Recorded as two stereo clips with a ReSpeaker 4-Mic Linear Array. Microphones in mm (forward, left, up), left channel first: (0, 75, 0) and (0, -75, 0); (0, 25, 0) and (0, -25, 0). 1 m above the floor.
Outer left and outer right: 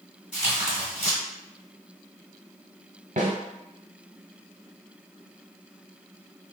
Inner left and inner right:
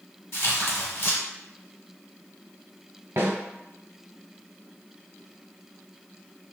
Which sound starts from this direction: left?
Tearing paper, at 0.3 s.